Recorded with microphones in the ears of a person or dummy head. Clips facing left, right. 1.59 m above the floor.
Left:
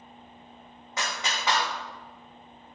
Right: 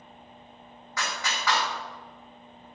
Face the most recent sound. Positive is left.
turn(degrees=15)  # may be behind; listen again after turning